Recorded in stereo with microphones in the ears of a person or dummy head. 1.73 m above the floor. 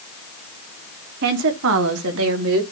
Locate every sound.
1.2 s a woman speaking: 55° right (ahead or behind), 1.1 m; by 2.6 s 80° right, 2.0 m